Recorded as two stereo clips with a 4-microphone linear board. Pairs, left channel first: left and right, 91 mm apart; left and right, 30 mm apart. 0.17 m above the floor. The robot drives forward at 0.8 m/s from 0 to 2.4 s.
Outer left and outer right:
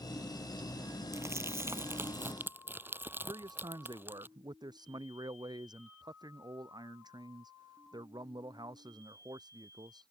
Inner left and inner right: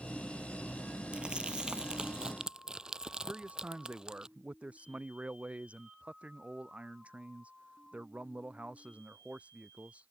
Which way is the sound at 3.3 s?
55° right (ahead or behind).